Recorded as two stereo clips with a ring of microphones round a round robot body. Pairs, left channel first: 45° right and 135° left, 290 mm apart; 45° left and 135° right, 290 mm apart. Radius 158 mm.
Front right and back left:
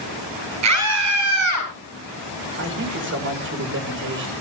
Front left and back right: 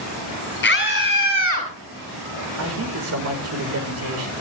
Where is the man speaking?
175° right, 5 m.